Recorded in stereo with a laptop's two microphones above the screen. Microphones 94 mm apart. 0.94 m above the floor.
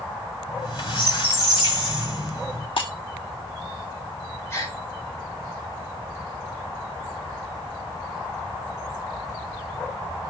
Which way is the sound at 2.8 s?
60° left (ahead or behind).